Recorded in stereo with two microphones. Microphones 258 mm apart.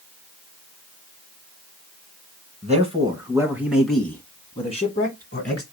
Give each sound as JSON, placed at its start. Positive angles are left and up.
{"t": 2.6, "sound": "a man speaking", "side_deg": -25, "distance_m": 1.6}